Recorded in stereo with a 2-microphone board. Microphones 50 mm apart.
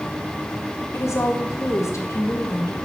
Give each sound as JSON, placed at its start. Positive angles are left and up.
{"t": 0.9, "sound": "a woman speaking", "side_deg": 70, "distance_m": 1.1}